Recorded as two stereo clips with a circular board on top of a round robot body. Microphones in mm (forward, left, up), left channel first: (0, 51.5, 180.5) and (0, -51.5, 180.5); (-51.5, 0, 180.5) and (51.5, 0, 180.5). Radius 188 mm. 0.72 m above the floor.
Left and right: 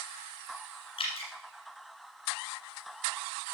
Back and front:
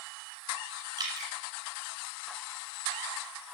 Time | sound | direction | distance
1.0 | dripping | 55° left | 1.8 m